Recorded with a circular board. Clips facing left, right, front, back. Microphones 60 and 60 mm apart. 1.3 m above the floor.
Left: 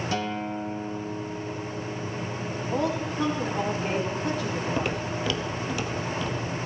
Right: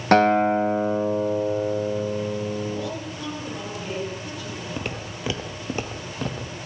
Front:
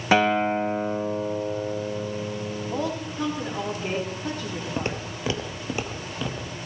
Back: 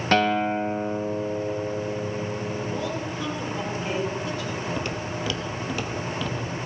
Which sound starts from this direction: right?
A guitar, at 0.1 s.